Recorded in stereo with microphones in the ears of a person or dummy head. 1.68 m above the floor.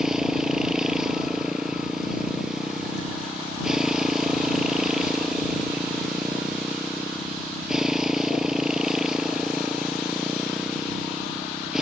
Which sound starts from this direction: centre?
A motorcycle, at 0.0 s.